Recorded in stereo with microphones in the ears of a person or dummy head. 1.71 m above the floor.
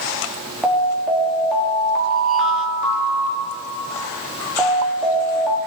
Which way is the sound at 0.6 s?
5° left (ahead or behind).